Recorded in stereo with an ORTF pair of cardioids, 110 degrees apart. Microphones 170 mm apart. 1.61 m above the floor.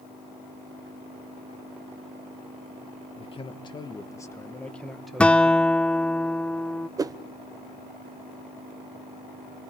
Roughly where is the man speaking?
Ahead left.